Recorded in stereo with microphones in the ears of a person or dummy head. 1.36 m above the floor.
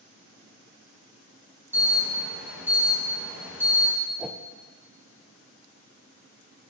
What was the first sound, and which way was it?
An alarm, 10° right (ahead or behind).